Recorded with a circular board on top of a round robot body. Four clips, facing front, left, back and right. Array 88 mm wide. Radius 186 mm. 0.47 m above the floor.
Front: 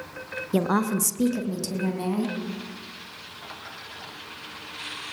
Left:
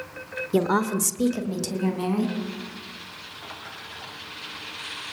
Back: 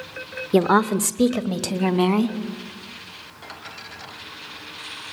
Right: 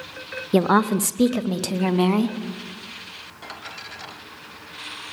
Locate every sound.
0.5 s a woman speaking: 125° right, 1.3 m; by 2.4 s 135° right, 2 m